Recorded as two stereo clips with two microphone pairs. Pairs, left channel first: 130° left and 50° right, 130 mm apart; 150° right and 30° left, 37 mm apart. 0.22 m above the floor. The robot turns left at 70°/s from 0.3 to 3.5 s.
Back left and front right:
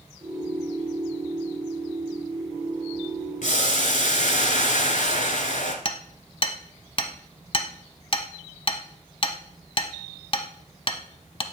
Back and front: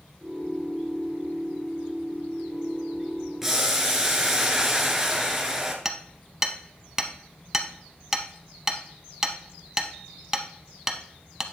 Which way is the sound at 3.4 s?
115° left.